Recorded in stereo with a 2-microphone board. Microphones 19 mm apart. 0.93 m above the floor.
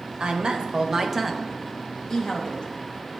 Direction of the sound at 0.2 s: 55° right (ahead or behind).